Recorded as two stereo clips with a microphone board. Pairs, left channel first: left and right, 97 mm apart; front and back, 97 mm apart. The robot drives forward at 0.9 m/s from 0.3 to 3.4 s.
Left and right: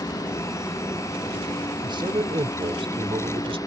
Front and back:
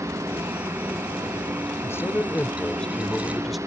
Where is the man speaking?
60° right; by 3.6 s 90° right.